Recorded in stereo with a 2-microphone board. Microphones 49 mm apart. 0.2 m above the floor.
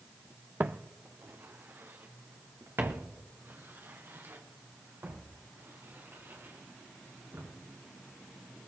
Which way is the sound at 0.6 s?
40° right (ahead or behind).